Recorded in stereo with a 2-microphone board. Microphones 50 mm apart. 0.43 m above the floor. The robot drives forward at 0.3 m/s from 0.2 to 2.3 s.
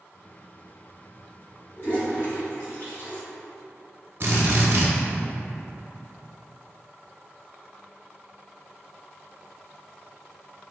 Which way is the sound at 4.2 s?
55° right (ahead or behind).